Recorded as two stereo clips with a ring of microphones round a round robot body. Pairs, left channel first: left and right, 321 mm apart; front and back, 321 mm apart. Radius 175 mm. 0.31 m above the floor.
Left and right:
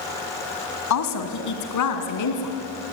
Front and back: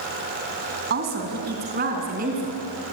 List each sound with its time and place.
0.9 s a woman speaking: 120° left, 3 m; by 2.6 s 115° left, 4 m